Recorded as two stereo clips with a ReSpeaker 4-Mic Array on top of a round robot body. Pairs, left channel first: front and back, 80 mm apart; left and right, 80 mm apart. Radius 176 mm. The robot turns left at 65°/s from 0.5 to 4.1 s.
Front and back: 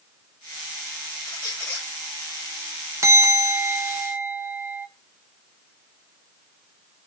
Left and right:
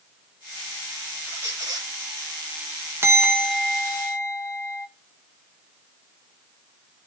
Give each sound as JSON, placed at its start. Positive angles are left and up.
{"t": 1.3, "sound": "a squeak", "azimuth_deg": -20, "distance_m": 9.0}
{"t": 3.0, "sound": "a bell", "azimuth_deg": -140, "distance_m": 1.8}